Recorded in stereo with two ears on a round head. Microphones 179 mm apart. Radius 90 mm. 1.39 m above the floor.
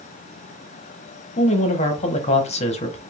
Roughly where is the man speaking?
Left.